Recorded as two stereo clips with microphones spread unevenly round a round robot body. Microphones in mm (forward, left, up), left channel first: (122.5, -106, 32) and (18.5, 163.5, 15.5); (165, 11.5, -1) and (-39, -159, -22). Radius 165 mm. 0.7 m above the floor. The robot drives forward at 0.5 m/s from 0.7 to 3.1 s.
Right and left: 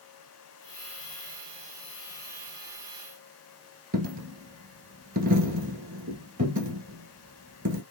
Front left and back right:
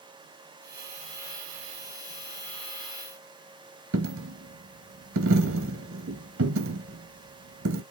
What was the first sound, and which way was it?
A dropped coin, 175° left.